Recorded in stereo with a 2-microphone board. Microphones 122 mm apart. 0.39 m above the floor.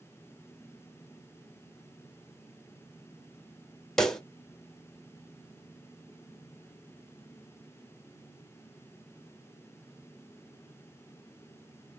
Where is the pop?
5° left (ahead or behind), 0.6 m.